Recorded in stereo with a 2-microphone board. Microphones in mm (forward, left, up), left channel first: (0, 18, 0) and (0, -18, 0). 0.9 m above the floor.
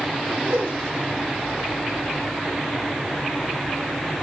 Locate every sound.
0.5 s a whoosh: 80° right, 2 m